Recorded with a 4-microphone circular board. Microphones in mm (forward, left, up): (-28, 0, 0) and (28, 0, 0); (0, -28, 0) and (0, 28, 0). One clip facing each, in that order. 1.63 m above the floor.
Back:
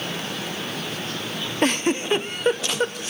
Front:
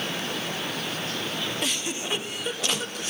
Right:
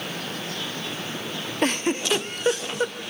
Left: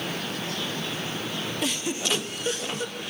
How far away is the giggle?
About 0.6 m.